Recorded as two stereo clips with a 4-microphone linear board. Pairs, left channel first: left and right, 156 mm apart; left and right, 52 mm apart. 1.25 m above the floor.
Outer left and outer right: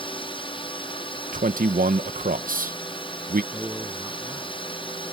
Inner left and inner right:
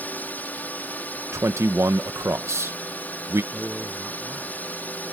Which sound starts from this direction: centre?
A man speaking, at 3.5 s.